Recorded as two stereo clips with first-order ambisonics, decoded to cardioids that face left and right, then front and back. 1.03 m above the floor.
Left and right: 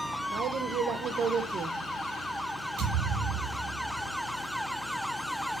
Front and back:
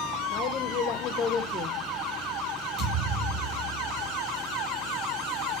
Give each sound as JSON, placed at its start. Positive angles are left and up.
{"t": 0.3, "sound": "a woman speaking", "azimuth_deg": -45, "distance_m": 0.7}
{"t": 2.8, "sound": "a thud", "azimuth_deg": -145, "distance_m": 5.0}